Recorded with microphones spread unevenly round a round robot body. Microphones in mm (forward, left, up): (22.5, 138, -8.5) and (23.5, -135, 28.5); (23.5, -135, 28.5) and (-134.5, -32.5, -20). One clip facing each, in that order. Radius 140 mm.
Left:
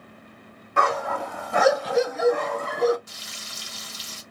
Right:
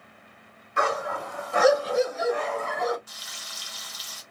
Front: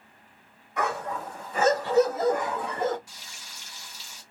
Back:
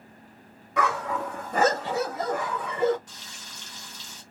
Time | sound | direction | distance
0.8 | a dog barking | 130° left | 1.3 m
3.1 | frying | 60° left | 1.3 m